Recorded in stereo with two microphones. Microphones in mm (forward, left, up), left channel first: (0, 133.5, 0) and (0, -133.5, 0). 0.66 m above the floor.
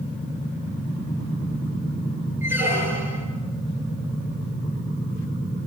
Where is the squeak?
10° right (ahead or behind), 6.5 m.